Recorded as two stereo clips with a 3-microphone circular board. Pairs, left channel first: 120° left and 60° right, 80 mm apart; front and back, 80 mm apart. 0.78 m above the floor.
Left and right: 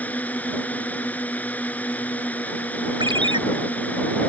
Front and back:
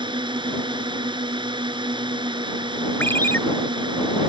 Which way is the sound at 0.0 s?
170° right.